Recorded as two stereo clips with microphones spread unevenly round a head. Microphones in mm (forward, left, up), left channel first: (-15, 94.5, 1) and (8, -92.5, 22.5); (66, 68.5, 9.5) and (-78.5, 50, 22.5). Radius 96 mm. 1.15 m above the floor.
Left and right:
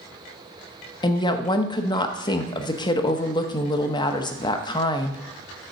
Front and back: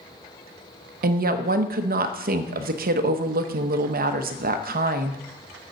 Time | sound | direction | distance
1.0 | a woman speaking | 165° left | 0.9 m